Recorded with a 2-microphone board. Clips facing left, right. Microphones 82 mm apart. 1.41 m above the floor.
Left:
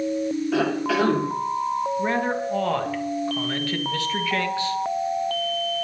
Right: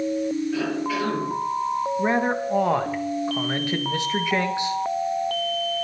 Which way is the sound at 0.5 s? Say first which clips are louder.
Left 3 dB; 85° left.